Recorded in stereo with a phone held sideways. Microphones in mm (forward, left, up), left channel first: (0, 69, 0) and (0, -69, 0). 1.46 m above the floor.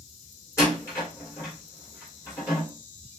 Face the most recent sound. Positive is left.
turn(degrees=20)  # may be behind; listen again after turning